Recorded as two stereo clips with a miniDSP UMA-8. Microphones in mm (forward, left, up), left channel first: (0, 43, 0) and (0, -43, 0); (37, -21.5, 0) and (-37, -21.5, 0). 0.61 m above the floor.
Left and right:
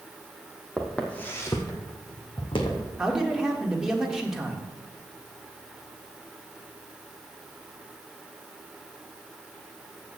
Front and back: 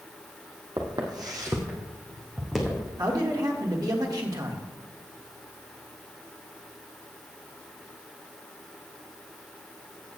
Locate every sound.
0.8 s footsteps: straight behind, 1.8 m; by 2.9 s 90° left, 2.5 m
3.0 s a man speaking: 170° right, 1.6 m